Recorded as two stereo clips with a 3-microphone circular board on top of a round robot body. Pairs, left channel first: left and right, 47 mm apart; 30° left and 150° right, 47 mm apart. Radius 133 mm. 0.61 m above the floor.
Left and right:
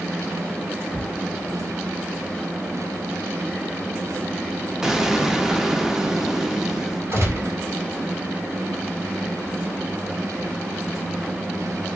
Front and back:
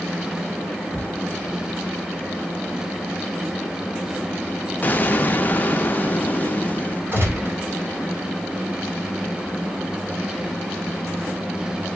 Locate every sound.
4.8 s an explosion: 15° right, 0.6 m
7.1 s a gunshot: 110° right, 1.7 m